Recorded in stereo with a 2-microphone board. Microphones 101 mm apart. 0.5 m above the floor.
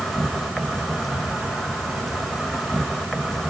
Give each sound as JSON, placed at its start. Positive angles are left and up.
{"t": 0.0, "sound": "an insect", "side_deg": 0, "distance_m": 2.0}